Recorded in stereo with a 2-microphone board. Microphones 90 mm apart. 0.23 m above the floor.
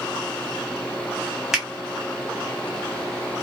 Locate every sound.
1.5 s a finger snap: 5° right (ahead or behind), 1.1 m